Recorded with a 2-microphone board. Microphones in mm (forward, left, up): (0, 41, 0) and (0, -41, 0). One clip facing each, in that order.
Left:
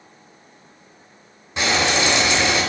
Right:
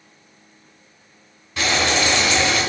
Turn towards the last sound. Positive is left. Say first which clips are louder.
# even
turn(degrees=20)  # may be behind; listen again after turning